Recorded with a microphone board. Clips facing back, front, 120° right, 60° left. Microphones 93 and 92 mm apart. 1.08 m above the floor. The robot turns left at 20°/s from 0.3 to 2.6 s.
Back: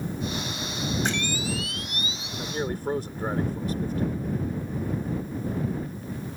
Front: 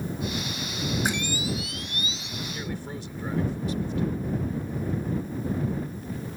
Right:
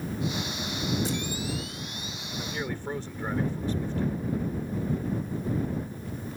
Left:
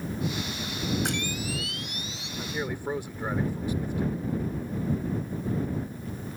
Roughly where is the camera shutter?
Left.